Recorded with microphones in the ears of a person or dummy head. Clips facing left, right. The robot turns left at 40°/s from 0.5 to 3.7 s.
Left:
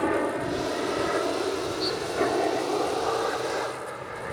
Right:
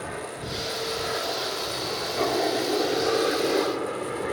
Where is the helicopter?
70° left (ahead or behind); by 4.3 s 60° right (ahead or behind).